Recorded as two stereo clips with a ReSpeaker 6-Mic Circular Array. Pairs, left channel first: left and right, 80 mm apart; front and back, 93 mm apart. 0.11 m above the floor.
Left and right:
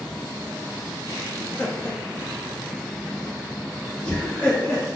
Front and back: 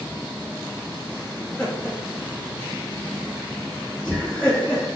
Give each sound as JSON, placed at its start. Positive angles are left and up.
{"t": 1.4, "sound": "laughter", "azimuth_deg": 50, "distance_m": 1.5}